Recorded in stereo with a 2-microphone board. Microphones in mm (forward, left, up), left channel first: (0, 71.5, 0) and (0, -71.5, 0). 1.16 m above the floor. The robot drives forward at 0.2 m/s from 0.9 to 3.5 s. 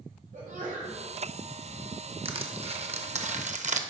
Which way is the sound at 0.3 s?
65° right (ahead or behind).